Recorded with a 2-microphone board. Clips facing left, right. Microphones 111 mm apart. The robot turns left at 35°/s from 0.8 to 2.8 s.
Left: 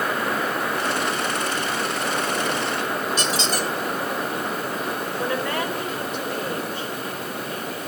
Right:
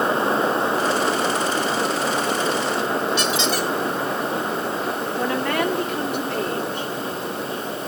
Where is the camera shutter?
I don't hear a camera shutter.